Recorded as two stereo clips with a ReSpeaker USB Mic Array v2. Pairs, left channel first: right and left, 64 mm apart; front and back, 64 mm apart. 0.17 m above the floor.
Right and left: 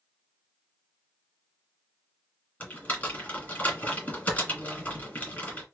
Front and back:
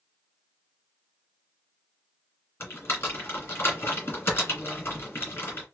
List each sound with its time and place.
2.6 s typing on a keyboard: 40° right, 1.9 m